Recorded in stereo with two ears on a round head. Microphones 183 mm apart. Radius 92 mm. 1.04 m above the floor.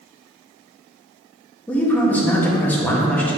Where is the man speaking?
5° left (ahead or behind), 1.5 m.